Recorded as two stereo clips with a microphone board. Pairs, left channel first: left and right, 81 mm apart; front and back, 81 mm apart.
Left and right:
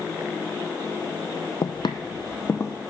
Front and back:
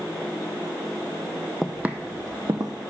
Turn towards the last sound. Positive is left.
turn(degrees=145)